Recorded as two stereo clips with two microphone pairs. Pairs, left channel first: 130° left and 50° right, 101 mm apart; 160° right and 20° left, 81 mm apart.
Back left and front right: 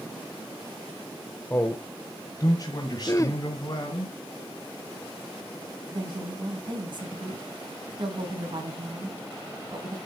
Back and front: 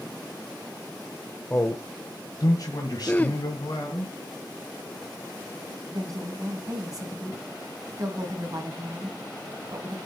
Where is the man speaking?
170° left, 1.0 m; by 4.1 s 175° left, 3 m.